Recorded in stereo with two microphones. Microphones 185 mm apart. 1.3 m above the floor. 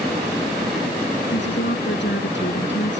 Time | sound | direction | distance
1.3 | a woman speaking | 85° left | ?